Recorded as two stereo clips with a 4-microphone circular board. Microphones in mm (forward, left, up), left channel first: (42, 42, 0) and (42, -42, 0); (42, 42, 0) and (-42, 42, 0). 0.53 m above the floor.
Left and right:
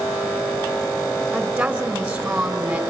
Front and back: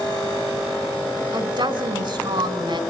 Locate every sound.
1.3 s a woman speaking: 170° right, 2.5 m